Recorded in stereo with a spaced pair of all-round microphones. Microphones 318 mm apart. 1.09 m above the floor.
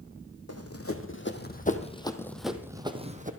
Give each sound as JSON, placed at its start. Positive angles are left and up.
{"t": 0.5, "sound": "running footsteps", "side_deg": 50, "distance_m": 2.0}